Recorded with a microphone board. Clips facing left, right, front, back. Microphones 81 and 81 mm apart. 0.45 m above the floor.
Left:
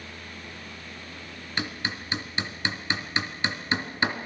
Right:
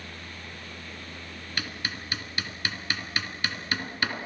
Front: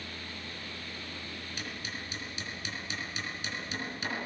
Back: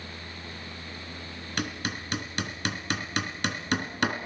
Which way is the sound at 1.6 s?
155° left.